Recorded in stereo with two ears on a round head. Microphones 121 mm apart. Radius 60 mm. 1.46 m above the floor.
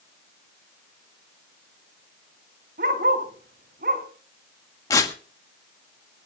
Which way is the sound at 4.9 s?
25° left (ahead or behind).